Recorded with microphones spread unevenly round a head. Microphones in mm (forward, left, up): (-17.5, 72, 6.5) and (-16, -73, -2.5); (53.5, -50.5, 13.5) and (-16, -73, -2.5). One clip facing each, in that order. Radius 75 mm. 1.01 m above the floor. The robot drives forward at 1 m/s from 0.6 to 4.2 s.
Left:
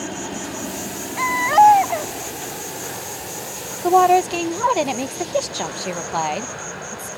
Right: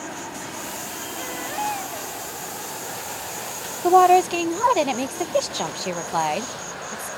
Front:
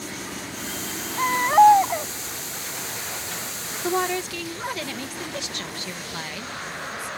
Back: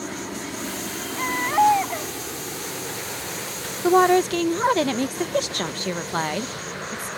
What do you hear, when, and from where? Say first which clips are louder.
0.0 s an insect: left 5 dB, back 3 dB; 135° left; by 7.2 s 155° left
1.2 s a baby crying: left 16 dB, front 5 dB; 85° left; by 2.1 s 95° left
3.8 s a woman speaking: even, back 9 dB; 175° right; by 7.1 s straight behind